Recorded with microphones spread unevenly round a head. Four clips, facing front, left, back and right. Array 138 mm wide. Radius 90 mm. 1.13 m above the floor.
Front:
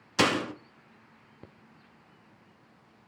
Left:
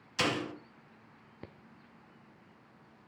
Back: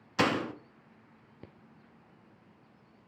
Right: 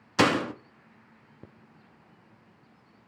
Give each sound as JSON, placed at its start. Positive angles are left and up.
{"t": 0.2, "sound": "a door slam", "azimuth_deg": -55, "distance_m": 1.9}